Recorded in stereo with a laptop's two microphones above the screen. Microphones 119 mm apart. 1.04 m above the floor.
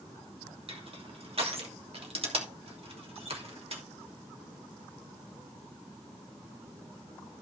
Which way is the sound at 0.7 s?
55° right (ahead or behind).